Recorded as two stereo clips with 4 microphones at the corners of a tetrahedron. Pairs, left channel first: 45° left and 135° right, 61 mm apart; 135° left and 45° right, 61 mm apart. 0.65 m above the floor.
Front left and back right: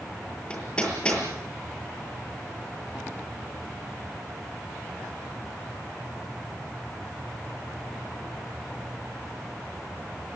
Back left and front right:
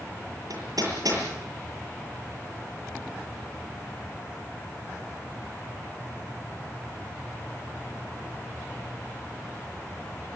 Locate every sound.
0.5 s hammering: 30° right, 7.5 m